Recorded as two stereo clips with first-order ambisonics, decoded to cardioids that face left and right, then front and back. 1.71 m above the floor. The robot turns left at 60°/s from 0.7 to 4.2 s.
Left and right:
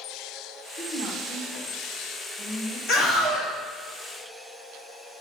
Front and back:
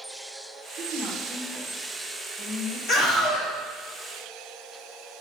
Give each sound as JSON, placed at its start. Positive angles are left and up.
{"t": 0.8, "sound": "a woman speaking", "azimuth_deg": 130, "distance_m": 1.7}
{"t": 2.9, "sound": "a scream", "azimuth_deg": 35, "distance_m": 1.4}